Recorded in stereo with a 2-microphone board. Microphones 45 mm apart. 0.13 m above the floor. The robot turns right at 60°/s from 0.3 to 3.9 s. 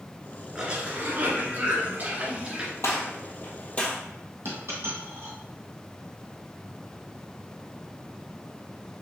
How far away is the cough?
About 1.8 m.